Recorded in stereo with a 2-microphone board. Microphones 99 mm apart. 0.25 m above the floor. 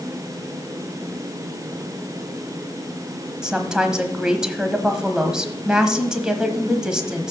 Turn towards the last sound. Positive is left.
turn(degrees=-5)  # may be behind; listen again after turning